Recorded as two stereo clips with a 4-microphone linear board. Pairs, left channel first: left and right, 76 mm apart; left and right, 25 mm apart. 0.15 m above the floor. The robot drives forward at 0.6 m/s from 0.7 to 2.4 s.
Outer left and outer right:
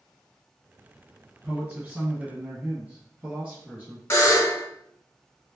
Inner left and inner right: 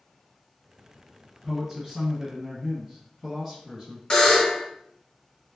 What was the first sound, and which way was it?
A man speaking, 15° right (ahead or behind).